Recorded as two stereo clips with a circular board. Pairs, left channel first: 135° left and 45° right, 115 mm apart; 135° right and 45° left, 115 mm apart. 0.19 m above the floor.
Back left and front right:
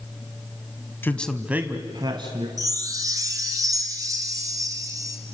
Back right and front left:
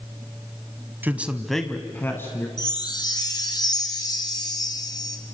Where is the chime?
95° right, 2 m.